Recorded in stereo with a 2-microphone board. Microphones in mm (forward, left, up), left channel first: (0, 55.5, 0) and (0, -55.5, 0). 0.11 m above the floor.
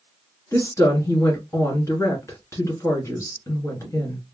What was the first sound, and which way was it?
A woman speaking, 30° left (ahead or behind).